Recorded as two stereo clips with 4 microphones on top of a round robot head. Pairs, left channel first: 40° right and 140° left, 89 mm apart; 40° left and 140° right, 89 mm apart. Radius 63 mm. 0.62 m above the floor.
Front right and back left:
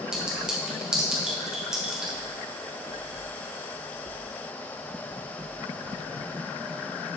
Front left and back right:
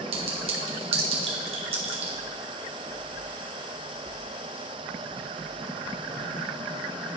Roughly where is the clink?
Behind right.